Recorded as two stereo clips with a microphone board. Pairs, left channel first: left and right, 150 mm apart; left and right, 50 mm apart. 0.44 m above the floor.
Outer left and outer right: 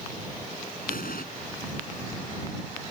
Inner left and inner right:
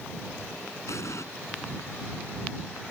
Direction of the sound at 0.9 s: 75° left (ahead or behind).